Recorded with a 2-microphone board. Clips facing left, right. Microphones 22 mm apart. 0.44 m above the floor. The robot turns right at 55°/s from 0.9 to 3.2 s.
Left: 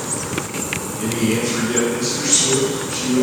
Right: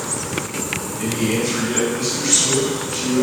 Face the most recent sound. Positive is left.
turn(degrees=20)  # may be behind; listen again after turning